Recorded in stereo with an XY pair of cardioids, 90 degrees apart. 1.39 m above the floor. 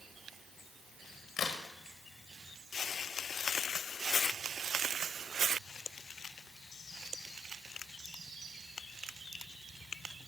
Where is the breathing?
I don't hear breathing.